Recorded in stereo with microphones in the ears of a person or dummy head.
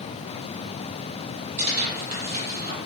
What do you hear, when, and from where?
1.6 s tearing paper: 40° right (ahead or behind), 1.7 m